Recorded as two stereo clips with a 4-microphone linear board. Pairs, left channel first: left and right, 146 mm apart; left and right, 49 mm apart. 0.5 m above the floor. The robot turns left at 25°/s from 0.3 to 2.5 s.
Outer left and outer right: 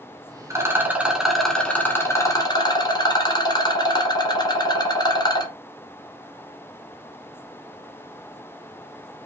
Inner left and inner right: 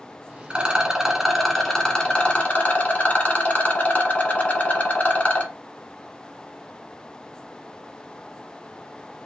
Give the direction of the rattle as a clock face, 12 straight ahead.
5 o'clock.